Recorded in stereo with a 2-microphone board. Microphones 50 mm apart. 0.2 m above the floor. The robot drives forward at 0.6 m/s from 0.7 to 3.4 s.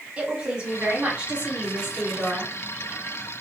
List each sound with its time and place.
0.2 s a woman speaking: 25° right (ahead or behind), 1.4 m; by 2.5 s 15° right (ahead or behind), 2 m